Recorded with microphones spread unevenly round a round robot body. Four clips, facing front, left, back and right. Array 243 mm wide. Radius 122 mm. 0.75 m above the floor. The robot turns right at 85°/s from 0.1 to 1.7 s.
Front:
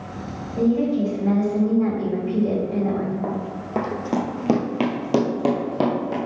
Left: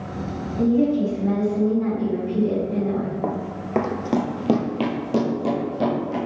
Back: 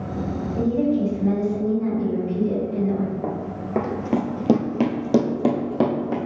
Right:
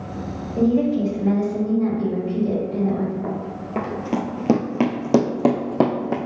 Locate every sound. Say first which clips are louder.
0.6 s a woman speaking: even, front 1 dB; 95° right, 2 m; by 3.1 s straight ahead, 2 m
3.2 s running footsteps: left 1 dB, even; 95° left, 0.8 m; by 6.2 s 95° right, 1.2 m